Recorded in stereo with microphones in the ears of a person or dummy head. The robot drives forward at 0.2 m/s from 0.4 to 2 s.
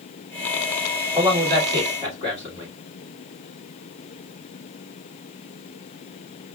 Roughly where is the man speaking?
Centre.